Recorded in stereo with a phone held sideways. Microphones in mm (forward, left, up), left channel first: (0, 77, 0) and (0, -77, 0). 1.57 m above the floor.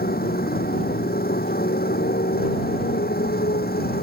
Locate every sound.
0.0 s a motorcycle: 80° left; by 4.0 s 85° left